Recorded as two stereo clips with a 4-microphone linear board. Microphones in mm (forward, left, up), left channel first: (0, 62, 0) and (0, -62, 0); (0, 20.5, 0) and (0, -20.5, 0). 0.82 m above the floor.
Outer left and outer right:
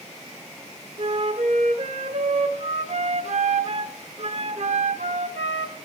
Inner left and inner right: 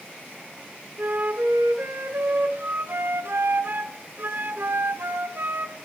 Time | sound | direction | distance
1.0 | a flute | 65° right (ahead or behind) | 0.7 m